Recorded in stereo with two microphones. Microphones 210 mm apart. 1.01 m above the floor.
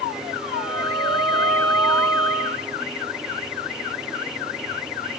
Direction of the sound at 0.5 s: 5° right (ahead or behind).